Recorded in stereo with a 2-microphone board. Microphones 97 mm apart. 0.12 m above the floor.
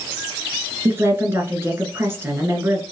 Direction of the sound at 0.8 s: 25° right (ahead or behind).